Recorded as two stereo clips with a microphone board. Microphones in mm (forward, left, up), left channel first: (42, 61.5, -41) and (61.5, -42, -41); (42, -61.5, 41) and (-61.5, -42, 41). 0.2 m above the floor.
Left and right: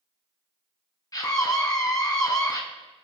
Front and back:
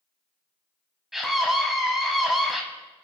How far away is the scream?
About 1.4 m.